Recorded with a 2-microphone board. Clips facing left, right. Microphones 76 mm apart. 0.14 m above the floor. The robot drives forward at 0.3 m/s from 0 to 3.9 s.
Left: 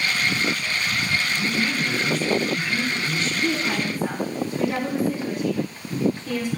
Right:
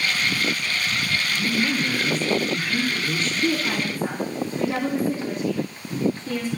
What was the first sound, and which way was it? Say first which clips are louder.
A woman speaking: right 1 dB; 55° right (ahead or behind).